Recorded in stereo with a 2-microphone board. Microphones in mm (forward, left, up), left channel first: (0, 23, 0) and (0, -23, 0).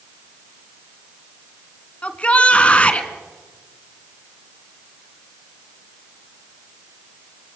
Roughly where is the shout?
Left.